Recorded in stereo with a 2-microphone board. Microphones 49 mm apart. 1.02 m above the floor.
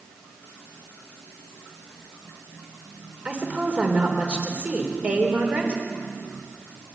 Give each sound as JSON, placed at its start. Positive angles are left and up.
{"t": 3.2, "sound": "a woman speaking", "side_deg": -30, "distance_m": 4.0}